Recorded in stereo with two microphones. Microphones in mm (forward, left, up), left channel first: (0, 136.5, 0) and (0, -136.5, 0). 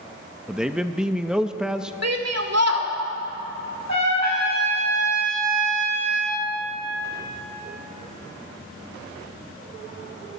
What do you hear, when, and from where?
0.5 s a man speaking: 5° right (ahead or behind), 0.6 m
2.0 s a shout: 65° right (ahead or behind), 2 m
3.9 s a trumpet: 80° right, 5 m